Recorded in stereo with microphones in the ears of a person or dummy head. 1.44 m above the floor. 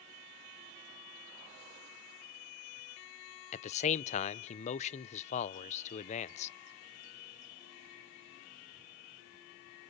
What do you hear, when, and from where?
3.5 s a man speaking: 40° left (ahead or behind), 0.7 m